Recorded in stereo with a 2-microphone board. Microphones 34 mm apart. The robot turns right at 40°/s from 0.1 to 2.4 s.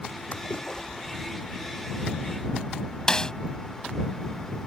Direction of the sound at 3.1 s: 20° left (ahead or behind).